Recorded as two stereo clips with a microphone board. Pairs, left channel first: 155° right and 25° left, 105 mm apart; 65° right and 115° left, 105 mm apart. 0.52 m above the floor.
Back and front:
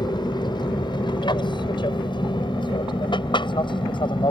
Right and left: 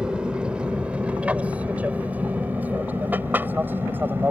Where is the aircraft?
170° right; by 4.3 s straight behind.